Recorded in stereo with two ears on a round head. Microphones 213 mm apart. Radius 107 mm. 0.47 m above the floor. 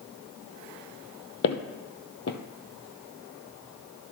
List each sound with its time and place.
1.4 s footsteps: 45° left (ahead or behind), 0.8 m